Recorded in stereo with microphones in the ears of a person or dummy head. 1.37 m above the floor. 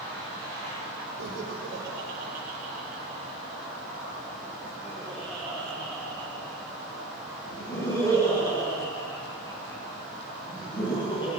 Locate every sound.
1.2 s laughter: 65° right (ahead or behind), 5 m; by 11.4 s 30° left (ahead or behind), 12.5 m